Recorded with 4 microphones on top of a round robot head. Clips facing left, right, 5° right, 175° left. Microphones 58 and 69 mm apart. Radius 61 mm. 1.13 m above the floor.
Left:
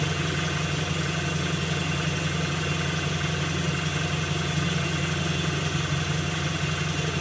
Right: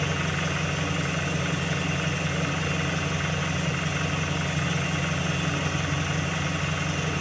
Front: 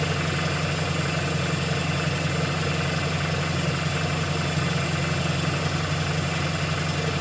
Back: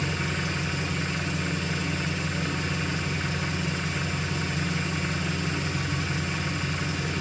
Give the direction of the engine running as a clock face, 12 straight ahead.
1 o'clock.